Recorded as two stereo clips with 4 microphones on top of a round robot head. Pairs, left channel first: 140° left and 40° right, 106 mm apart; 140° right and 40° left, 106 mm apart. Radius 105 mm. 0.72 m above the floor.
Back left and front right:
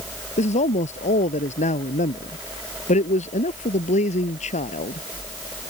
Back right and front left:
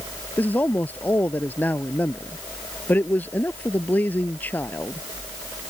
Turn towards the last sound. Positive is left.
turn(degrees=145)